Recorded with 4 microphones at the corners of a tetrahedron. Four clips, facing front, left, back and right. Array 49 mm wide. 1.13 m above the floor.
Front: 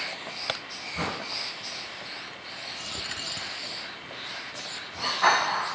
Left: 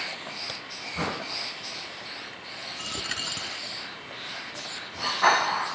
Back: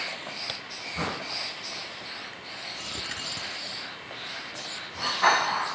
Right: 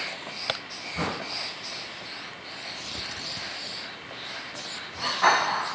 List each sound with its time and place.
0.5 s a crack: 55° right
2.8 s a dropped coin: 95° left